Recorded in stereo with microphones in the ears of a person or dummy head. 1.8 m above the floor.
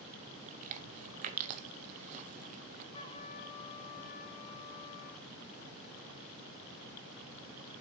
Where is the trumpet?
25° left (ahead or behind), 1.3 m.